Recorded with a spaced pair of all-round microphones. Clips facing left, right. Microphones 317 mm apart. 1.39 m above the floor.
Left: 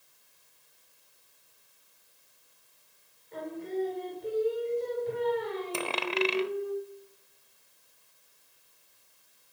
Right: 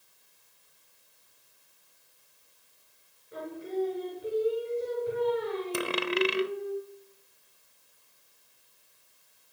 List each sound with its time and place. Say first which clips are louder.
3.3 s singing: even; 10° right (ahead or behind), 5.5 m
5.7 s a dropped coin: right 3 dB; 20° right (ahead or behind), 0.7 m